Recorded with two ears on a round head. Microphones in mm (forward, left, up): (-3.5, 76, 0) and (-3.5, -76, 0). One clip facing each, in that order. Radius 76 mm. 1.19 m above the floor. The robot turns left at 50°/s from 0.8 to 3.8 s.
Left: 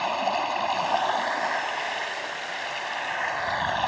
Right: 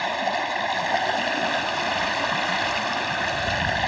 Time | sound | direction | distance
0.0 | running water | 10° right | ?